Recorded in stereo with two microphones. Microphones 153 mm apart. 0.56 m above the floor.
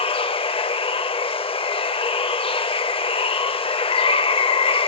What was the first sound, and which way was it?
Running water, 40° left (ahead or behind).